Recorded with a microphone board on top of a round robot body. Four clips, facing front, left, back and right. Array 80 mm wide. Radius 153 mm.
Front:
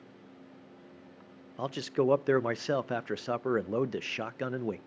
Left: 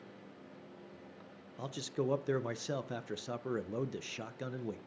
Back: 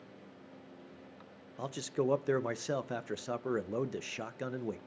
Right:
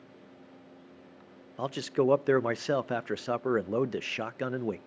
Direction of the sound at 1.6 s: 55° right.